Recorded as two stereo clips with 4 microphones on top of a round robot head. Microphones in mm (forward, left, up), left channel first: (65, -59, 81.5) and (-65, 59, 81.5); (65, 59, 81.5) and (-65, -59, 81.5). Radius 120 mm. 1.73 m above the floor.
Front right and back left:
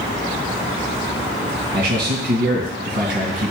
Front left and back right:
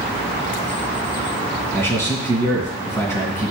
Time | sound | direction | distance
1.7 | a man speaking | 115° left | 2.5 m